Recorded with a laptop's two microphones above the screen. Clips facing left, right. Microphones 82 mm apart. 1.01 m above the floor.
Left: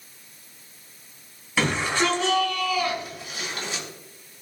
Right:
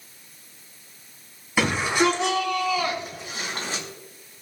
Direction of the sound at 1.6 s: 10° right (ahead or behind).